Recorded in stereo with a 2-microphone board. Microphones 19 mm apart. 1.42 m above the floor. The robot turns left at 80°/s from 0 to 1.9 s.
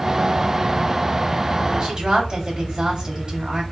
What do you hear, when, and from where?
1.8 s a woman speaking: 45° right (ahead or behind), 2.5 m; by 3.6 s 55° right (ahead or behind), 2.5 m